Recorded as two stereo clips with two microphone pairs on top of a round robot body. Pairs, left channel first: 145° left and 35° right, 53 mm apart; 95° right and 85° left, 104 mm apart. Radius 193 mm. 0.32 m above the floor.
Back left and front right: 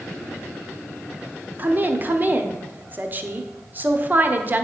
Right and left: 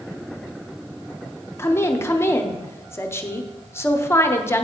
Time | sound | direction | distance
1.6 | a woman speaking | 50° right | 1.0 m